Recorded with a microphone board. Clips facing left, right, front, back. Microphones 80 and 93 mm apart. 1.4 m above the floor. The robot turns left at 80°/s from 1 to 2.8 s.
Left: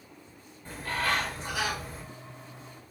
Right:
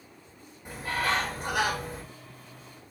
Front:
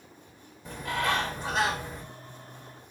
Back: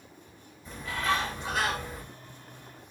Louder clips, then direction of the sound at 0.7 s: Right 1 dB, front 1 dB; 15° right.